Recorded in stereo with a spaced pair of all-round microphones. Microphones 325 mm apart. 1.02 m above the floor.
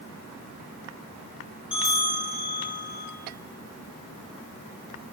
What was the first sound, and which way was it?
A bell, 65° left (ahead or behind).